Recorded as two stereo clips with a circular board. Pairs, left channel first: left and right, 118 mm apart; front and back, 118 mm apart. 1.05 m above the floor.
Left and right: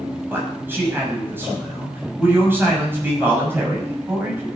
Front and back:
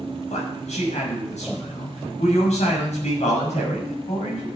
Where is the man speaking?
20° right, 6.5 m.